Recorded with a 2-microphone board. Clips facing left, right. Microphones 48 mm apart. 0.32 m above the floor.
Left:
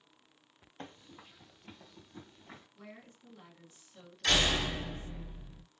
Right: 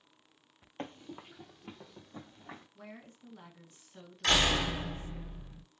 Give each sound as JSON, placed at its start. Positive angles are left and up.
{"t": 0.8, "sound": "running footsteps", "side_deg": -50, "distance_m": 0.5}
{"t": 2.8, "sound": "a woman speaking", "side_deg": -40, "distance_m": 1.4}
{"t": 4.2, "sound": "a door slam", "side_deg": -40, "distance_m": 1.6}